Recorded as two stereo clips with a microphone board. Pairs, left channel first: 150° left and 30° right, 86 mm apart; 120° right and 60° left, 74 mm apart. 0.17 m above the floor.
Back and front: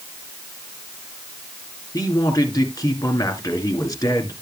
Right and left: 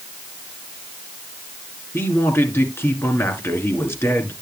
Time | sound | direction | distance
1.9 | a man speaking | 170° right | 2.5 m